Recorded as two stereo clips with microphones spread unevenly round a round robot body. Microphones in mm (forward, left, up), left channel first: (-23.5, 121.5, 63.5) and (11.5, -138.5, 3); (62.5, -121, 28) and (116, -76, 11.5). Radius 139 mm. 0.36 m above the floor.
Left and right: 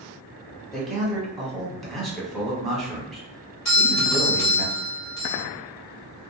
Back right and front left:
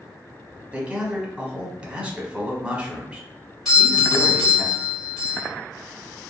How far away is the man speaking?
About 1.0 m.